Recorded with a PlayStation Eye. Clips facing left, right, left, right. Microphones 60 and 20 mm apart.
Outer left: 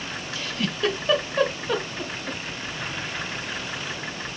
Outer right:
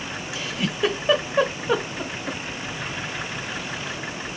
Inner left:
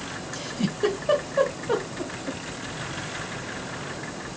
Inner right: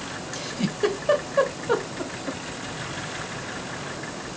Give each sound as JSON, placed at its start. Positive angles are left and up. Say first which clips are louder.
{"t": 0.3, "sound": "a giggle", "louder": "outer right 1 dB, even", "side_deg": -15, "distance_m": 0.9}